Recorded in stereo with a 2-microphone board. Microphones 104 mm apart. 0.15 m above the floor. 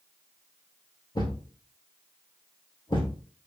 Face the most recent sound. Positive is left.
turn(degrees=50)  # may be behind; listen again after turning